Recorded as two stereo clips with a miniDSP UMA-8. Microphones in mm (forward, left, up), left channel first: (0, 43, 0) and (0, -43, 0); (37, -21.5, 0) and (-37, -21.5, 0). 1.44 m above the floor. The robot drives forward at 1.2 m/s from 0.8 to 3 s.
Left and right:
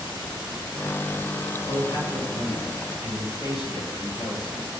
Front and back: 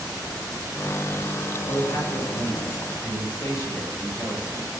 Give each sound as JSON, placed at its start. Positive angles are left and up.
{"t": 1.7, "sound": "a man speaking", "azimuth_deg": 45, "distance_m": 9.0}